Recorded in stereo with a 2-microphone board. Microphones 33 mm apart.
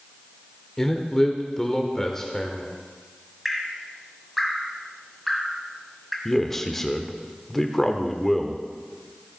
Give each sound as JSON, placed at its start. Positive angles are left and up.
{"t": 0.8, "sound": "a man speaking", "side_deg": 15, "distance_m": 1.1}
{"t": 3.5, "sound": "dripping", "side_deg": -5, "distance_m": 1.7}
{"t": 6.2, "sound": "a man speaking", "side_deg": 10, "distance_m": 1.0}